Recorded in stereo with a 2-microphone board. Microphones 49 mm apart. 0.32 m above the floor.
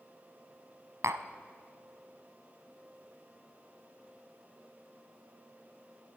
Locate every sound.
1.0 s tapping: 80° right, 0.6 m